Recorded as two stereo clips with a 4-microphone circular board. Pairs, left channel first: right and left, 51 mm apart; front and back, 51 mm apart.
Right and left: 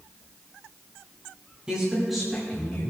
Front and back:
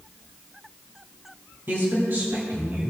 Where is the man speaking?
160° left, 2.5 m; by 2.9 s 145° right, 2 m.